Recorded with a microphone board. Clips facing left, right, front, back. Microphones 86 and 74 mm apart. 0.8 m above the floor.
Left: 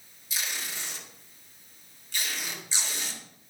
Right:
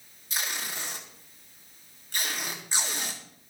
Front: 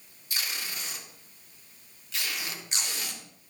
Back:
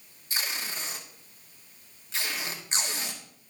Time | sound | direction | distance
0.3 | tape being pulled | 125° right | 1.4 m